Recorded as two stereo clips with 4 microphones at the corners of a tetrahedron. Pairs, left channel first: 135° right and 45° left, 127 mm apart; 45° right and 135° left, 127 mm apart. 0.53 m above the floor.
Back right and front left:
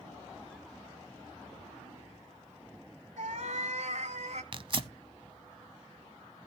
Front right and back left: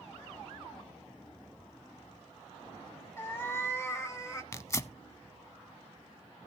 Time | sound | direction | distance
3.2 | a cat meowing | 25° left | 1.4 m
4.5 | tearing paper | 15° left | 0.5 m